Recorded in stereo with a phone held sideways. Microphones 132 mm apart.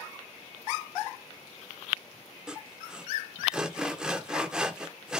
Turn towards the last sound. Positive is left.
turn(degrees=-5)  # may be behind; listen again after turning